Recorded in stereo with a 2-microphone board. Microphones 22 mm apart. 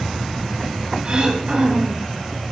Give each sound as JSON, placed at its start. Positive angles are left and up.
{"t": 1.0, "sound": "throat clearing", "side_deg": -40, "distance_m": 3.5}